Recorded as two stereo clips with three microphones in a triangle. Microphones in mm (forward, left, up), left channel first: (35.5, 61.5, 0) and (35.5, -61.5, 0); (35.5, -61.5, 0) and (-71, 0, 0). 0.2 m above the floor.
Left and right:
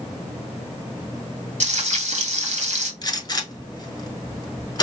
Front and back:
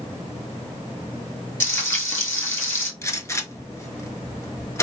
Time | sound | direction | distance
1.6 | frying | 100° right | 1.0 m
3.0 | a gunshot | 35° left | 0.6 m